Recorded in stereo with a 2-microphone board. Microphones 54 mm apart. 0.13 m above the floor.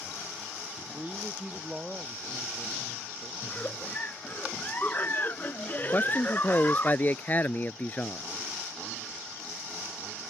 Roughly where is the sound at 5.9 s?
Left.